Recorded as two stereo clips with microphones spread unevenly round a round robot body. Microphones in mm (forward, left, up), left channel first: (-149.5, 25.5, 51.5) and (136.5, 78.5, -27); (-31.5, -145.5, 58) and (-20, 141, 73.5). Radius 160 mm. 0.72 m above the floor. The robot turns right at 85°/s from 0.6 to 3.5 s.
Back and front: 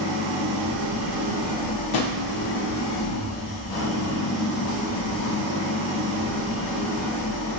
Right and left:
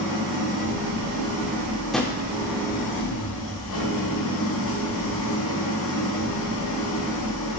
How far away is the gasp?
No gasp in this recording.